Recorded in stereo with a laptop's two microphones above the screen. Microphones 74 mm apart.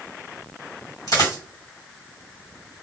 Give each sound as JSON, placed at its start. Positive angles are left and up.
{"t": 1.1, "sound": "a dropped coin", "side_deg": 60, "distance_m": 2.0}